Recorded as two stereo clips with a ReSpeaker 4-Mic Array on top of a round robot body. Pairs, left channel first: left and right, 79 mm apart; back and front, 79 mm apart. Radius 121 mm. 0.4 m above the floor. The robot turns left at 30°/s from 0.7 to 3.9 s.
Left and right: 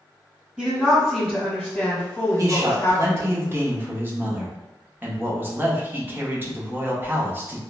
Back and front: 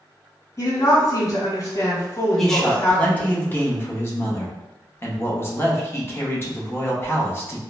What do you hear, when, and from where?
0.6 s a woman speaking: 155° right, 1.4 m; by 3.4 s 125° left, 1.4 m
2.4 s a man speaking: 95° right, 0.9 m; by 7.6 s 140° right, 0.9 m